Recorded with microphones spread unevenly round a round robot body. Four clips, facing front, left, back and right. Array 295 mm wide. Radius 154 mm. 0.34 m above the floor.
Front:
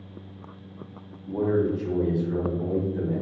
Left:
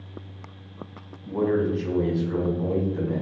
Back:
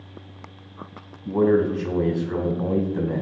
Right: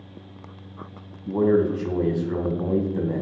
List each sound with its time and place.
1.2 s a man speaking: 160° right, 2.5 m